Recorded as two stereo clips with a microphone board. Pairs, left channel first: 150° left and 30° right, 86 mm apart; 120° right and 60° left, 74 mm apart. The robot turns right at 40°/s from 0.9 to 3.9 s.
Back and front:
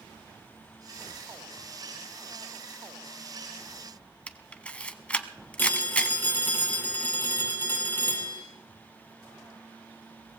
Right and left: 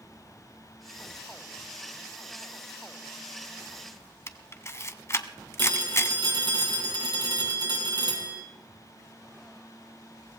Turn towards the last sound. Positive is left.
turn(degrees=85)